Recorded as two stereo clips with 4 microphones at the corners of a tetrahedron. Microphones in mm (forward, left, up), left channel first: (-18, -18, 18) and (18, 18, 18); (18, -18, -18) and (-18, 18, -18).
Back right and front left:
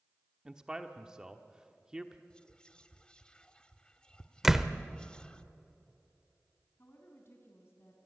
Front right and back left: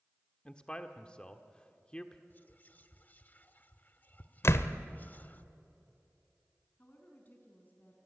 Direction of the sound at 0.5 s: 10° right.